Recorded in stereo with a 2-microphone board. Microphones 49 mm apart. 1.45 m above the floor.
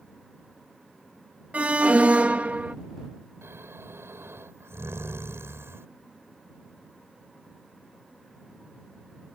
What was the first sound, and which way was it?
An alarm, 30° right (ahead or behind).